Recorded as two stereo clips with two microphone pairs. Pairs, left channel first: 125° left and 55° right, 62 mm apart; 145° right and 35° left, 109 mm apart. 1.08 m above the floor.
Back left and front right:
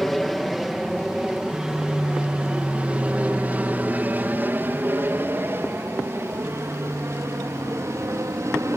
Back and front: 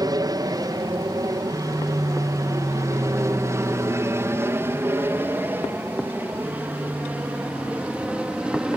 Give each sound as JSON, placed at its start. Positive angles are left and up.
{"t": 0.0, "sound": "an aircraft", "azimuth_deg": 35}